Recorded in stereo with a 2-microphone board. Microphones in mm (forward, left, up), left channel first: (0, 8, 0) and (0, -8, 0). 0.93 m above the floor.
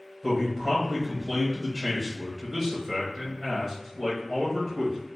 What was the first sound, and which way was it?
A man speaking, 20° right (ahead or behind).